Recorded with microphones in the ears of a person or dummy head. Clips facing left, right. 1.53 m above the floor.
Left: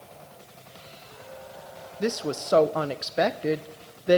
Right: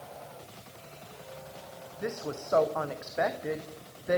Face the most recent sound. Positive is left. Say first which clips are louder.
# left 7 dB
turn(degrees=35)  # may be behind; listen again after turning